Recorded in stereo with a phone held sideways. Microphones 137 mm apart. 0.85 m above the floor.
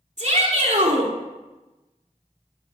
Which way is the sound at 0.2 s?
60° right (ahead or behind).